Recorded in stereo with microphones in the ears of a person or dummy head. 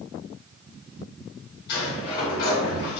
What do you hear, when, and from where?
1.7 s a sliding door: 60° left (ahead or behind), 1.4 m